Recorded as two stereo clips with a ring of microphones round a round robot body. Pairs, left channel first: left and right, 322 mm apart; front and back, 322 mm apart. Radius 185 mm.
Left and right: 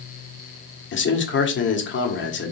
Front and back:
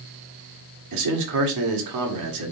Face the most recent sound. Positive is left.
turn(degrees=145)